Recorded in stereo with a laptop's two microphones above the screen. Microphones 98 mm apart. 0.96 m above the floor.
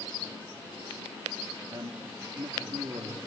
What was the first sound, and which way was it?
A man speaking, 45° right (ahead or behind).